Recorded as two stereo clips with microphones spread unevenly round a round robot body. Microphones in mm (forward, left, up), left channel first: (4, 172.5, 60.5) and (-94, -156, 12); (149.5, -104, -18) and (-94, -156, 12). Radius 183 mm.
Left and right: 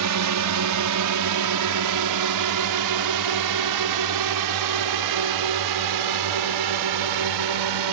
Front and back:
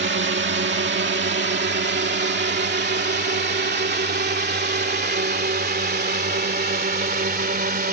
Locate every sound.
0.0 s a drone: 130° right; by 7.9 s 115° right